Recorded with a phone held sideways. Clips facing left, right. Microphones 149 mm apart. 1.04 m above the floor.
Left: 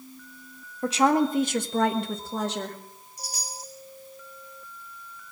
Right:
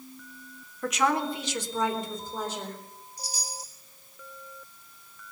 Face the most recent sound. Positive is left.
turn(degrees=60)  # may be behind; listen again after turning